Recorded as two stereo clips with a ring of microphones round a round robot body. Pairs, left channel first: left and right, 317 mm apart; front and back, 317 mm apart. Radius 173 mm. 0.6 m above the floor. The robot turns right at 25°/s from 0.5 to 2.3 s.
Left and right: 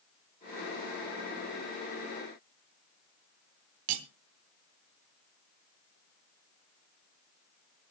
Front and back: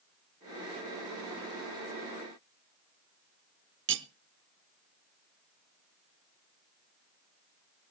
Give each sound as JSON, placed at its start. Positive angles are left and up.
{"t": 3.9, "sound": "cutlery clinking", "azimuth_deg": -120, "distance_m": 0.9}